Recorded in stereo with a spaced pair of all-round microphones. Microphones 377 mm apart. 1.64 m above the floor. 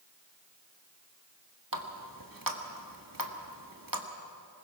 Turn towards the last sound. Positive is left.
turn(degrees=-60)  # may be behind; listen again after turning